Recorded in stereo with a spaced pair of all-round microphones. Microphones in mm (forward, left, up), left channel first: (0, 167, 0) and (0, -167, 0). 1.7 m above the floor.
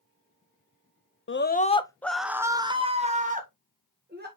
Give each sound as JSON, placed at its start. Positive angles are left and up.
{"t": 1.3, "sound": "a scream", "side_deg": 35, "distance_m": 0.5}